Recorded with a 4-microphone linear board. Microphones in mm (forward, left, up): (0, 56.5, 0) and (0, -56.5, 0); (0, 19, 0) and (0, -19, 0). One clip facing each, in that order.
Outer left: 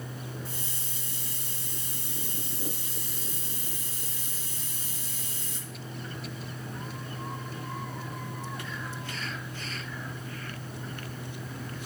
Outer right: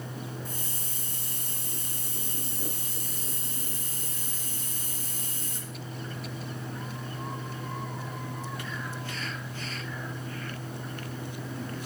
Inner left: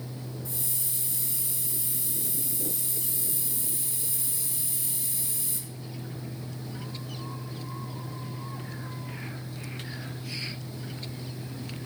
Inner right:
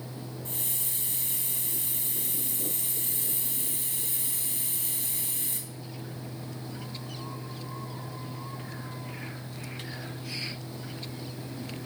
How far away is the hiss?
About 1.6 m.